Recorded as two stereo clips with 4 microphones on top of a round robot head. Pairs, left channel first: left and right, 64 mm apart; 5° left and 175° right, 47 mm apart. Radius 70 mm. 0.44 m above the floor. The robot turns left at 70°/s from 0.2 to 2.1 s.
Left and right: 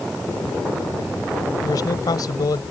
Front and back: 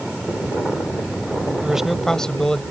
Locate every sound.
1.6 s a man speaking: 115° left; by 2.6 s 80° left